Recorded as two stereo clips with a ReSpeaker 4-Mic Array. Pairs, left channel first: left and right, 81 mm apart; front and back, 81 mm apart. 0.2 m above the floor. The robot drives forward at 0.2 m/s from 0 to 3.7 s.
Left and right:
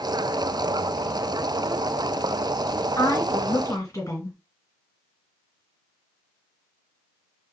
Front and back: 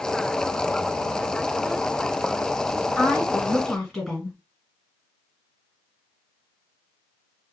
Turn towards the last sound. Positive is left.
turn(degrees=85)